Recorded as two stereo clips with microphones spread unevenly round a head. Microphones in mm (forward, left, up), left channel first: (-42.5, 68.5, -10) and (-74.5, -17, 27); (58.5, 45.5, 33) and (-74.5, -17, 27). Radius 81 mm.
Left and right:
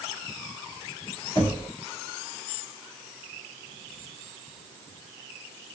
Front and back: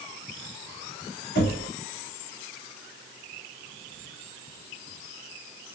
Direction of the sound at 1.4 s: Straight ahead.